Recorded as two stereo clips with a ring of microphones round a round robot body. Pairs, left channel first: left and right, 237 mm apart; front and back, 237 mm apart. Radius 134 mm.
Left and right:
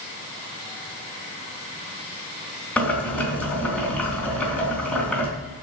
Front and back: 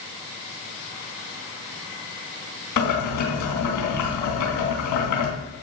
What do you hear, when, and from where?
2.8 s boiling: 5° left, 3.5 m